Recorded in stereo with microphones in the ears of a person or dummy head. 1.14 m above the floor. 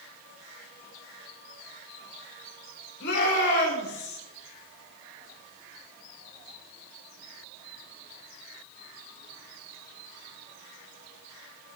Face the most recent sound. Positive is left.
turn(degrees=60)  # may be behind; listen again after turning